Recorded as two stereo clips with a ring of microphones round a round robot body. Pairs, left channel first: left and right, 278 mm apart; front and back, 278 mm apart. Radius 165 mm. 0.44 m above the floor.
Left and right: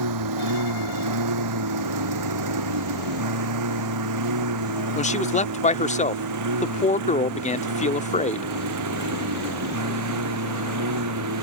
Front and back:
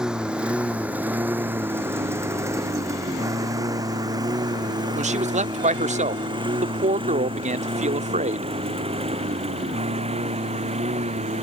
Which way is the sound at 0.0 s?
95° right.